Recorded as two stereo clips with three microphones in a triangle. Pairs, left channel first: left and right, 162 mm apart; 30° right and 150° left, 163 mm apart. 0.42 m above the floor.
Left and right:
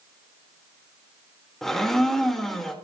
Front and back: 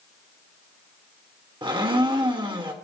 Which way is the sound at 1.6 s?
175° left.